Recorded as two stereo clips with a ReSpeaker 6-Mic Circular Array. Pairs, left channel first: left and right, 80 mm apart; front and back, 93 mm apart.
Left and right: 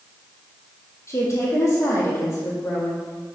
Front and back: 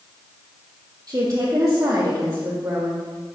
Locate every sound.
1.1 s a woman speaking: 140° left, 3 m